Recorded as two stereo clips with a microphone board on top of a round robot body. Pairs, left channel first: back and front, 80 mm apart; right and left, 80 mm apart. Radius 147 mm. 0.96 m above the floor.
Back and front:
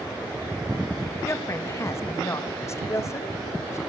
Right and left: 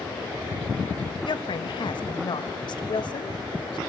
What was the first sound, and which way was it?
A woman speaking, 120° right.